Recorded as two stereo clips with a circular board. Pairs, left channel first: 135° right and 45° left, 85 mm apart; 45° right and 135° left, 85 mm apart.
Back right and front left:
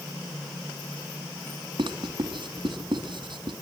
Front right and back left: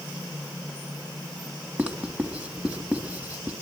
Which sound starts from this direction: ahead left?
Writing, at 1.8 s.